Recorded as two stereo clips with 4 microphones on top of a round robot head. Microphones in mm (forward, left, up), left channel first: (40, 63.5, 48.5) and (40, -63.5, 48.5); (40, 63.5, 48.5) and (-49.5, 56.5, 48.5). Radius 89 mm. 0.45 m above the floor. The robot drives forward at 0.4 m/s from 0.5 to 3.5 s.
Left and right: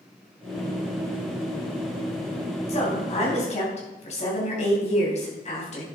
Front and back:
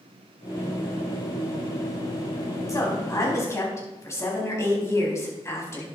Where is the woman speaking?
55° left, 4.5 m; by 5.8 s 60° left, 4 m.